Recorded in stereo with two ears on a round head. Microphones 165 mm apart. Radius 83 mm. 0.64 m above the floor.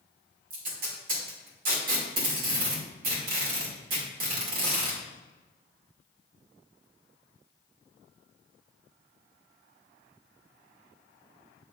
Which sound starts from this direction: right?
Tape being pulled, at 0.5 s.